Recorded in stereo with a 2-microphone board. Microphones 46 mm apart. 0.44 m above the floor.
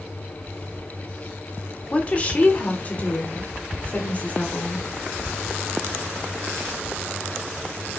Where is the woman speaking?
25° left (ahead or behind), 1.4 m; by 4.8 s 35° left (ahead or behind), 2.5 m.